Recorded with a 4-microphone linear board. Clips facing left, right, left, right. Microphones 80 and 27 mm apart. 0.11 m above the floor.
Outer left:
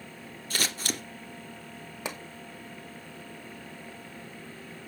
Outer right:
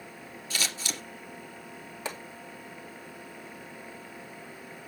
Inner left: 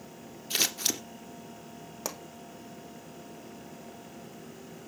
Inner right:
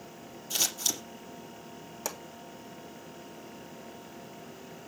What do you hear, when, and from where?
0.5 s scissors: 45° left (ahead or behind), 2.5 m
2.0 s a pop: 15° left (ahead or behind), 2.5 m